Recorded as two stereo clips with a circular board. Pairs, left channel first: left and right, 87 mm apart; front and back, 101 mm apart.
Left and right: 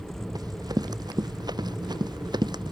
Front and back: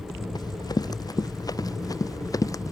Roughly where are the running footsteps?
Ahead right.